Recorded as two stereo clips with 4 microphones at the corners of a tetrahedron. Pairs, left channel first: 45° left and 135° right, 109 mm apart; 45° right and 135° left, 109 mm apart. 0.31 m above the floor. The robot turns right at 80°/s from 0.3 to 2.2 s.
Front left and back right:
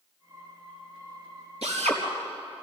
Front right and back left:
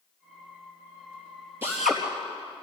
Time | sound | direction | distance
1.6 | a drill | 155° right | 4 m